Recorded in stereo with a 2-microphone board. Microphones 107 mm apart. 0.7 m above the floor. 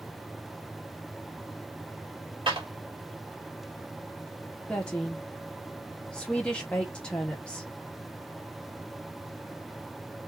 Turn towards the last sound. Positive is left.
turn(degrees=10)  # may be behind; listen again after turning